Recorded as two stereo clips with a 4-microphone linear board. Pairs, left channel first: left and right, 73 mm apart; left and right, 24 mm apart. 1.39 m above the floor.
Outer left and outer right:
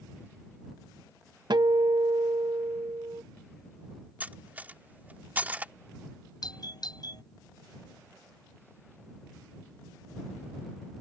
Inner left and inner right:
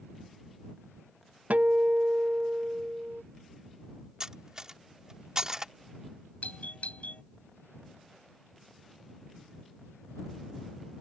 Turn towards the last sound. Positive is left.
turn(degrees=65)  # may be behind; listen again after turning